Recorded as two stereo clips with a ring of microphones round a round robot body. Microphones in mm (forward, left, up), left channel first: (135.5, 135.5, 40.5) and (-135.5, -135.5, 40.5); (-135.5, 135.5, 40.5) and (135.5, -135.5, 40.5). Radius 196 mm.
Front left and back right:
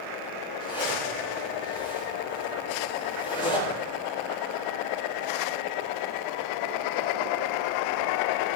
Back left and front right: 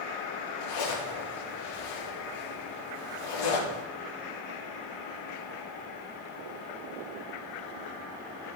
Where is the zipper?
125° left, 6.5 m.